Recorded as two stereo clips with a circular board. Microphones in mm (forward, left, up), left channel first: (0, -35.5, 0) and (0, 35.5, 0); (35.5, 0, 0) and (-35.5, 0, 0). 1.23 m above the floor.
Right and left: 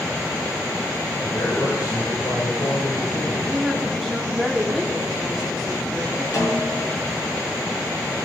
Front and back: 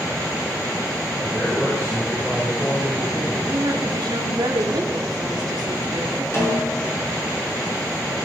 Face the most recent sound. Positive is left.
turn(degrees=-50)